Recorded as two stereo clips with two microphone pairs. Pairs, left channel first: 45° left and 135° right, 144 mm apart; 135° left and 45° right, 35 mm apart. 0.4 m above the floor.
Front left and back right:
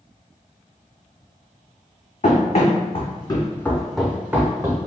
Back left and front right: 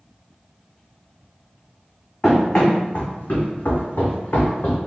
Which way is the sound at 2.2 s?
65° left.